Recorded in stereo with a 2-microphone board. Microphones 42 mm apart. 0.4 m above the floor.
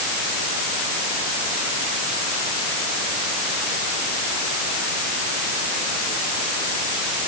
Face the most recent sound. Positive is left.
No sound to turn to.